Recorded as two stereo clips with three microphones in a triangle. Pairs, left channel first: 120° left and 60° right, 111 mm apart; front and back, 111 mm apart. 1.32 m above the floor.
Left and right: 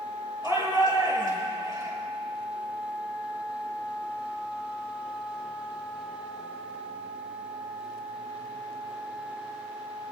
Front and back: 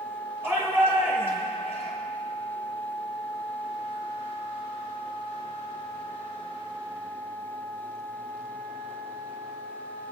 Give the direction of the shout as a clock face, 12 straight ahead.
4 o'clock.